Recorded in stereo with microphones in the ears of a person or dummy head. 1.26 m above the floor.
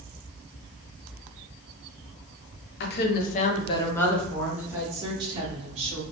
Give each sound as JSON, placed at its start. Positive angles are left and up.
{"t": 2.8, "sound": "a woman speaking", "side_deg": 60, "distance_m": 0.8}